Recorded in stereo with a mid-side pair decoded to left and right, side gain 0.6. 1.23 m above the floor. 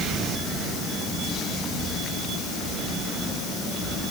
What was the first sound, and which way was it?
Only background noise.